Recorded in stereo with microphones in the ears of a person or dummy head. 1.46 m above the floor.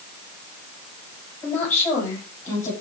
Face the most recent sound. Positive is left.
turn(degrees=20)  # may be behind; listen again after turning